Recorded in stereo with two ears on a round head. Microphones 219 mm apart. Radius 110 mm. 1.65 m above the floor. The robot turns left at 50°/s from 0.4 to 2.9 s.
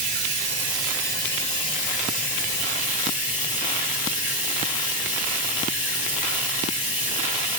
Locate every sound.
0.0 s running water: 145° right, 2.5 m; by 7.6 s 90° left, 2.5 m